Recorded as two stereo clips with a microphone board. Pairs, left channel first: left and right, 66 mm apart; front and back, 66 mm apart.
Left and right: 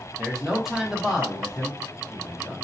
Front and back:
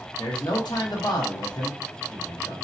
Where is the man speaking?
5° right, 0.8 m.